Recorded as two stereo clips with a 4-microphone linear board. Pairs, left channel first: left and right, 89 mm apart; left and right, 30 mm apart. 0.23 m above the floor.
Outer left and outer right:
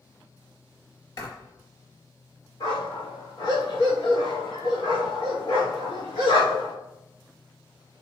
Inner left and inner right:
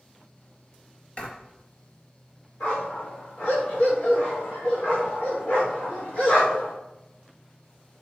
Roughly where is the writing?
Left.